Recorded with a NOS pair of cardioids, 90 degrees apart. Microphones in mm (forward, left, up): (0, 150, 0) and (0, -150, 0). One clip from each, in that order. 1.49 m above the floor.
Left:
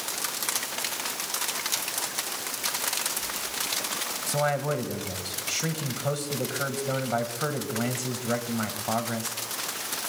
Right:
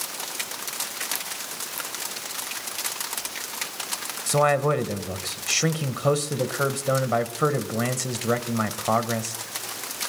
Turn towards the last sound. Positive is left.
turn(degrees=-45)